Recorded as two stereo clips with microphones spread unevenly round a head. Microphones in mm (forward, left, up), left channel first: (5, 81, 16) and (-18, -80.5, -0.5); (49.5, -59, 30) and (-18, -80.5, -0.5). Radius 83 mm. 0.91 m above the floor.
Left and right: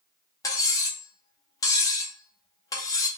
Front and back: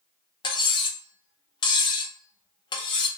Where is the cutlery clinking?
10° left, 0.6 m.